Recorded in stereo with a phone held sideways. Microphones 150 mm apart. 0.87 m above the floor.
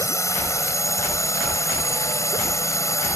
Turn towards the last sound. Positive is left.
turn(degrees=20)  # may be behind; listen again after turning